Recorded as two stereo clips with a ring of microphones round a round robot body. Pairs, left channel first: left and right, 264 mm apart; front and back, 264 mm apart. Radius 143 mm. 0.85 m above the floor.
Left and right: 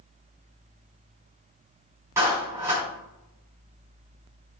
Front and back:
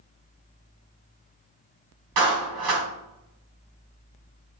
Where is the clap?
170° right, 4.5 m.